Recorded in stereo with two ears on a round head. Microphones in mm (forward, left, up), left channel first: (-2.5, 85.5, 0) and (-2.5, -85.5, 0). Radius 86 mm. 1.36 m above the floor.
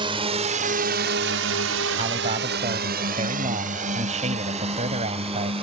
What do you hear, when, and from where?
0.0 s a drone: 25° right (ahead or behind); by 5.6 s 30° right (ahead or behind)
2.0 s a man speaking: 35° right (ahead or behind)